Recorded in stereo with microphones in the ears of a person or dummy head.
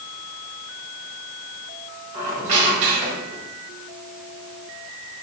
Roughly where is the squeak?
Right.